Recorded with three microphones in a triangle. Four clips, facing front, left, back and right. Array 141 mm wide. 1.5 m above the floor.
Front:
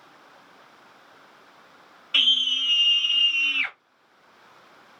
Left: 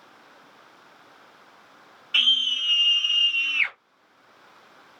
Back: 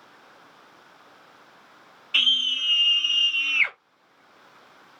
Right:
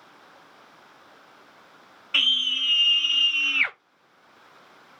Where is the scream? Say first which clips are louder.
Left 1 dB, front 1 dB; 40° right, 1.8 m; by 3.8 s 125° right, 0.6 m.